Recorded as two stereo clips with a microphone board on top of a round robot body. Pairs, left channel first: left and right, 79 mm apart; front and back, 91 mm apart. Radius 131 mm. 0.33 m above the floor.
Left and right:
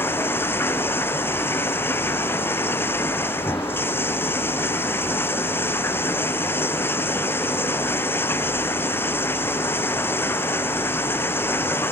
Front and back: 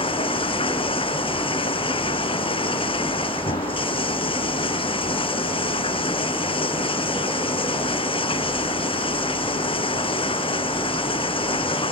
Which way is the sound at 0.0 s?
25° left.